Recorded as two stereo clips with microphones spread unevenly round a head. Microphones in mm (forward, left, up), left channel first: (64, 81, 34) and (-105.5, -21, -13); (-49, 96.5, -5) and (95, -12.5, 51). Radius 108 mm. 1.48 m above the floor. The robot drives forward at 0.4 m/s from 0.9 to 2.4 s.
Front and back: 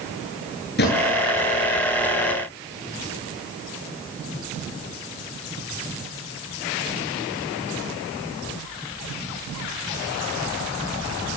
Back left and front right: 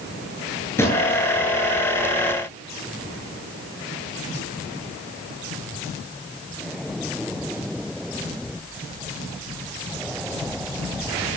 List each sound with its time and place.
0.8 s a drawer: 65° left, 9 m